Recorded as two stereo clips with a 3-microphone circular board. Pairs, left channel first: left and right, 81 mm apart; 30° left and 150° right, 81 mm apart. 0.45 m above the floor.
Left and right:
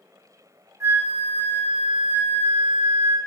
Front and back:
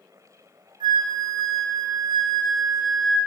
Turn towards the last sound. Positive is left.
turn(degrees=-145)